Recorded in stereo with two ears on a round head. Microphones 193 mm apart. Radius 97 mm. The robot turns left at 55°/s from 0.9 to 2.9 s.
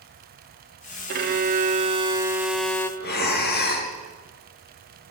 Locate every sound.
1.1 s a violin: 95° right, 1.6 m; by 2.9 s 165° left, 1.6 m
3.0 s breathing: 50° left (ahead or behind), 3.5 m